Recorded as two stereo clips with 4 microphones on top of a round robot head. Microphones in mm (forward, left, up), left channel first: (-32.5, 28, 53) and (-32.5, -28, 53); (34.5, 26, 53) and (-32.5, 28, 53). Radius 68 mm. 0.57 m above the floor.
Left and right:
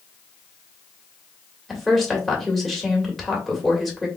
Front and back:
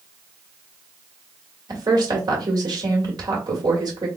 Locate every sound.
1.7 s a woman speaking: straight behind, 1.9 m